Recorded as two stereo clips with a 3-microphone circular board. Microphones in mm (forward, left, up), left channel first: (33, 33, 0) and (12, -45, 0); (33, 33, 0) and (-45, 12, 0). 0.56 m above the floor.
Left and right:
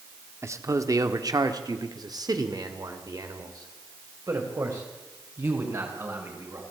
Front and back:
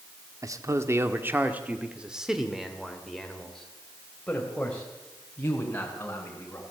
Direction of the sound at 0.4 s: 145° right.